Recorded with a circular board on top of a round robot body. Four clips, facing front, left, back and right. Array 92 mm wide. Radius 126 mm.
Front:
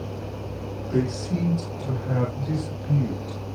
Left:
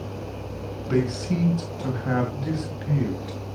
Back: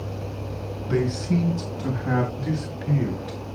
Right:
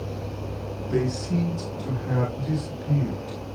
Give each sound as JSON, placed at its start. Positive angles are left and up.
{"t": 0.9, "sound": "a man speaking", "azimuth_deg": 120, "distance_m": 6.0}